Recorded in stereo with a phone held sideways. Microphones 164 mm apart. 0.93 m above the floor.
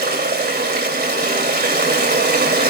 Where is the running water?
80° right, 2.5 m.